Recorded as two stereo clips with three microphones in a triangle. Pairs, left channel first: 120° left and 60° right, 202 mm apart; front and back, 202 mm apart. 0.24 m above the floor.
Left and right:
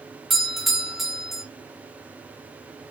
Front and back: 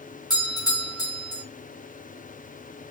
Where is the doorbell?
30° left, 1.7 m.